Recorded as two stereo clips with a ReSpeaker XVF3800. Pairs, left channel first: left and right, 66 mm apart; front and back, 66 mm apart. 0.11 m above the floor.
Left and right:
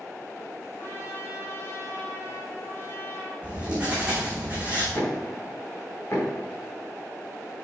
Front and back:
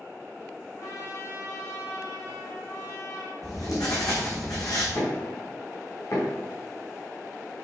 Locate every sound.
0.8 s a trumpet: 40° left, 3.5 m
3.4 s writing: 20° right, 5 m
5.0 s knocking: 40° left, 5.5 m